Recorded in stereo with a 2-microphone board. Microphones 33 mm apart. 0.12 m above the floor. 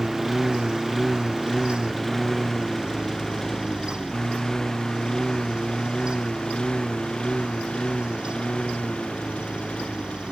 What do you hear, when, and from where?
0.0 s a lawn mower: 5° right (ahead or behind); by 10.3 s 35° left (ahead or behind)